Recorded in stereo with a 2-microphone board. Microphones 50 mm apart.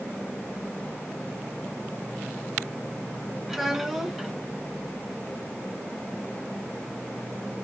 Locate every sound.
3.5 s a child speaking: 5° right (ahead or behind), 1.3 m